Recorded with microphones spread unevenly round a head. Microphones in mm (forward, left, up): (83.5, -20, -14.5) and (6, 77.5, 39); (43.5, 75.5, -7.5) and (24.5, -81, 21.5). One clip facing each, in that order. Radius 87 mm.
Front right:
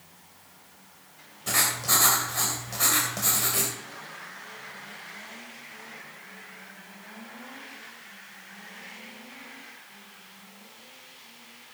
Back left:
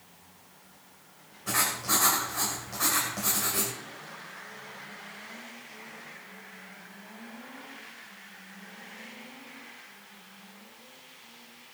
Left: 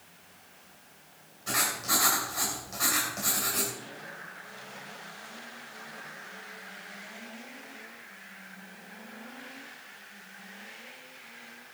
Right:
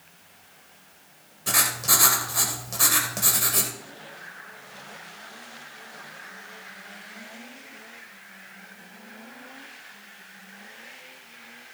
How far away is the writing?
About 2.5 m.